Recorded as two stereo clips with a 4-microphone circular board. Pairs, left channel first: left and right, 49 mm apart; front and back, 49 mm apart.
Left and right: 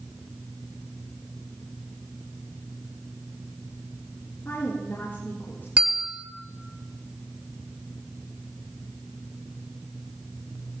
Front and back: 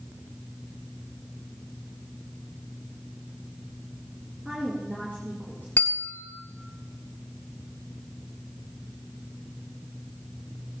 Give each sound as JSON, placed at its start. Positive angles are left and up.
{"t": 4.5, "sound": "a woman speaking", "azimuth_deg": 125, "distance_m": 4.0}
{"t": 5.8, "sound": "a bell", "azimuth_deg": -40, "distance_m": 1.4}